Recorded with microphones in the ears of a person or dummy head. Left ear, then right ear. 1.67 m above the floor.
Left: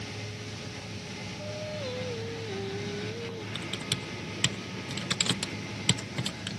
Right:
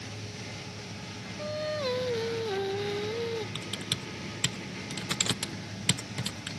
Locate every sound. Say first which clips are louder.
1.4 s singing: right 6 dB; 50° right (ahead or behind)
3.5 s typing on a keyboard: left 1 dB; centre (ahead or behind)